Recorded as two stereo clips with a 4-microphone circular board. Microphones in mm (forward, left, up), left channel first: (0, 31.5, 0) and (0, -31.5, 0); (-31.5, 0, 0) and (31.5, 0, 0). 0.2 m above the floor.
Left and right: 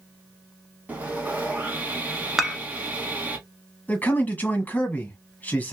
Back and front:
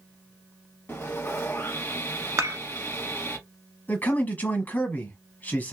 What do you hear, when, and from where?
0.9 s sawing: 145° right, 1.0 m
2.4 s dishes clattering: 5° right, 1.0 m
3.9 s a man speaking: 140° left, 1.2 m